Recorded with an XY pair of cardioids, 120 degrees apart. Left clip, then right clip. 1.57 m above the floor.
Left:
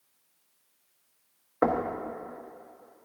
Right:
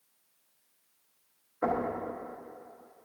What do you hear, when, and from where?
1.6 s knocking: 60° left, 1.0 m